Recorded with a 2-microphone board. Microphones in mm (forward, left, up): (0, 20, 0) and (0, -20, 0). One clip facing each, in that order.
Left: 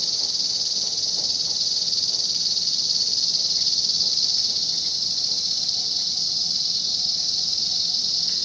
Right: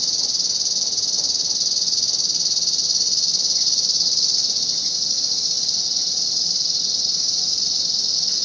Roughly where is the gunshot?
I don't hear a gunshot.